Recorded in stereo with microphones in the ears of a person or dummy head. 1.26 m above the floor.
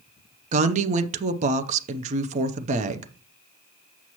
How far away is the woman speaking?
About 0.6 m.